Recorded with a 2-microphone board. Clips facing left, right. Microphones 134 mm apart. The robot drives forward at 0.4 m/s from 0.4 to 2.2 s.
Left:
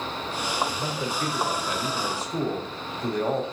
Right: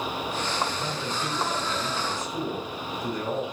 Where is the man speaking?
40° left (ahead or behind), 1.2 m; by 3.5 s 70° left (ahead or behind), 0.8 m.